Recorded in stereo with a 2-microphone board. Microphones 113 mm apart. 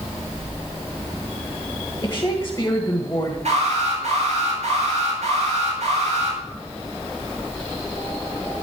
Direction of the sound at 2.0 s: 25° left (ahead or behind).